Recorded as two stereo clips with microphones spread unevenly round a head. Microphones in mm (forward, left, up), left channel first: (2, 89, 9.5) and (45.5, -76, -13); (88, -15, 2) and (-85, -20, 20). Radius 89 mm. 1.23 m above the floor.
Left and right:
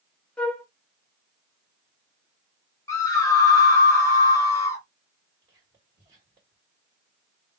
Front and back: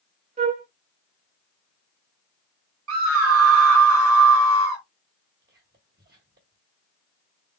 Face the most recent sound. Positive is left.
turn(degrees=-145)